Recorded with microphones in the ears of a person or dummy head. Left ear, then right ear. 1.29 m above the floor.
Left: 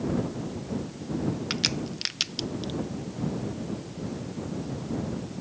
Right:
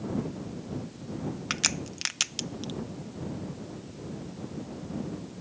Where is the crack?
35° right (ahead or behind).